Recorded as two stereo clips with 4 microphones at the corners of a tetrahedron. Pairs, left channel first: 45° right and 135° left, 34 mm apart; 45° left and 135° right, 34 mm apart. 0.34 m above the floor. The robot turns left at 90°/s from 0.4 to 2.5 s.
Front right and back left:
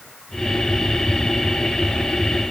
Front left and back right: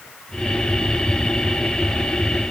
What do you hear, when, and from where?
Only background noise.